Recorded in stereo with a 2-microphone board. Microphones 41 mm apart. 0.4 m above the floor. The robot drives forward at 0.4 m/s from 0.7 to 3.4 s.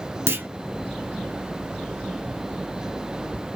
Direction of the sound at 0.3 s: 80° right.